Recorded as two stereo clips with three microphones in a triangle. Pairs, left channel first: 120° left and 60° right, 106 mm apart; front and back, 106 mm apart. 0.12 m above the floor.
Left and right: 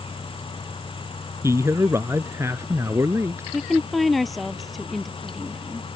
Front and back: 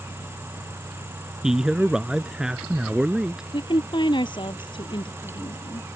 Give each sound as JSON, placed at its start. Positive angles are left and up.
{"t": 1.4, "sound": "a man speaking", "azimuth_deg": -100}
{"t": 3.5, "sound": "a woman speaking", "azimuth_deg": 30}